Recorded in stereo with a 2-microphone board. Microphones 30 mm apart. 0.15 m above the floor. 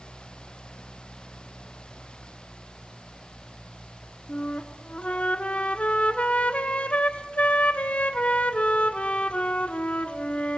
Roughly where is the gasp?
No gasp in this recording.